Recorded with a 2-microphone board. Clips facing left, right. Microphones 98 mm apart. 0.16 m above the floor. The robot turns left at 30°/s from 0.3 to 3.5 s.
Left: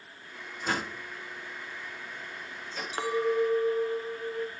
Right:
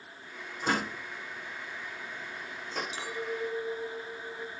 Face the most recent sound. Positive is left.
turn(degrees=45)  # may be behind; listen again after turning